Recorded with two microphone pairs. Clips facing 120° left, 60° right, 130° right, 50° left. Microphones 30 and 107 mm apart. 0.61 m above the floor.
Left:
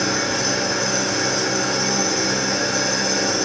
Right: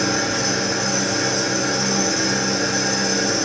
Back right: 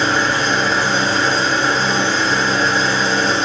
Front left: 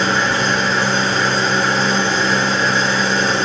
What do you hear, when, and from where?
0.0 s an engine running: 60° left, 1.2 m